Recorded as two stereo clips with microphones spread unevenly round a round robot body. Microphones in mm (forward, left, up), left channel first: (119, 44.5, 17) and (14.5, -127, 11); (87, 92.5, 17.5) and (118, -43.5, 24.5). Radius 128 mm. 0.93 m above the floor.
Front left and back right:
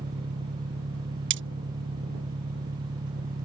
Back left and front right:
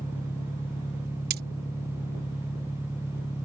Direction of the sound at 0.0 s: 175° left.